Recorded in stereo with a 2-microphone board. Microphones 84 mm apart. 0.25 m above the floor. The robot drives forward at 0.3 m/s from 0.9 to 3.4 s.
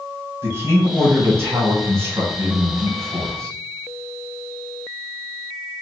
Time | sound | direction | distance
0.4 | a man speaking | 30° right (ahead or behind) | 1.7 m